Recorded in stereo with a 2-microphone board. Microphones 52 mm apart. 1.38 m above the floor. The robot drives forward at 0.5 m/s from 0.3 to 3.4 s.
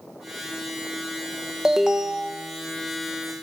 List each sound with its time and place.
1.6 s an alarm: 10° right (ahead or behind), 1.4 m